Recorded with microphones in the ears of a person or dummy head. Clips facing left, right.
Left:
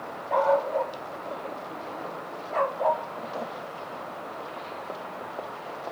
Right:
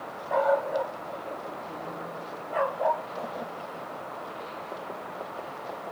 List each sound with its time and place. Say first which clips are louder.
0.3 s a dog barking: left 1 dB; 5° right (ahead or behind), 2.5 m